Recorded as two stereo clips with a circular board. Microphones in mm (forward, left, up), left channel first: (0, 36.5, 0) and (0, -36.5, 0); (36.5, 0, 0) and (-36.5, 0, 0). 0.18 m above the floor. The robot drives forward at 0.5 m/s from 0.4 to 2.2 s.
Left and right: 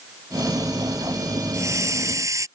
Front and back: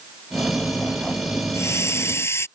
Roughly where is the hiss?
Ahead right.